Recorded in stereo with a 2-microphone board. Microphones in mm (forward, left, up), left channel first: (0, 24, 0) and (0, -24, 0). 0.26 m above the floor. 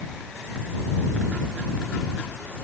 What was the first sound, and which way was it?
Only background noise.